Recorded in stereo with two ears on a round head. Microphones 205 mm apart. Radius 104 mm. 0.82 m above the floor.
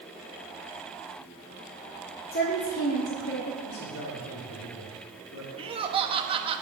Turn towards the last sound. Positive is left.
turn(degrees=-25)  # may be behind; listen again after turning